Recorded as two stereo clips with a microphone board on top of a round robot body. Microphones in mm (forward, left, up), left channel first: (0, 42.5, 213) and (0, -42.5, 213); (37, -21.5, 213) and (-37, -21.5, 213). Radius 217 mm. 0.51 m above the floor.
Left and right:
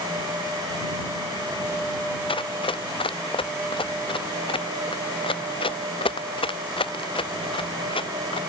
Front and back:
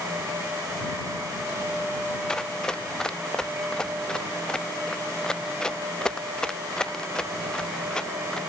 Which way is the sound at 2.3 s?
80° left.